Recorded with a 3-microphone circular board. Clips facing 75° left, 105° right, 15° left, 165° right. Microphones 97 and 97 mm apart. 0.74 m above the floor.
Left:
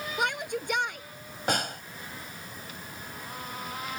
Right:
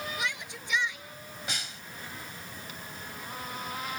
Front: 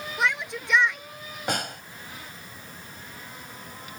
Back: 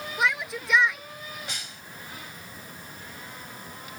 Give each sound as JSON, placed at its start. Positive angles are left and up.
{"t": 0.2, "sound": "a shout", "azimuth_deg": 105}
{"t": 1.5, "sound": "a snare drum", "azimuth_deg": 45}